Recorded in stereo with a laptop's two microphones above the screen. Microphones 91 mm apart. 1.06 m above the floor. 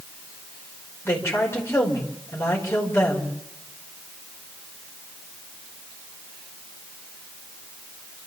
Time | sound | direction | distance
1.1 | a woman speaking | 25° left (ahead or behind) | 5 m